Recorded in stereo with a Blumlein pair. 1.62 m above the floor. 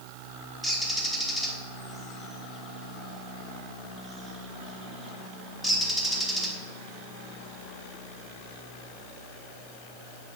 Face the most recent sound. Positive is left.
turn(degrees=5)